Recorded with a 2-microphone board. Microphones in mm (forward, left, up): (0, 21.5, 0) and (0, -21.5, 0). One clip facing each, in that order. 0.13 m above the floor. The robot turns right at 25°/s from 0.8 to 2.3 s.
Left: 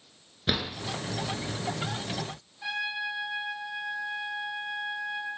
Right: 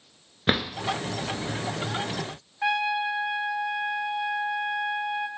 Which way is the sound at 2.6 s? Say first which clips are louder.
Right 7 dB; 65° right (ahead or behind).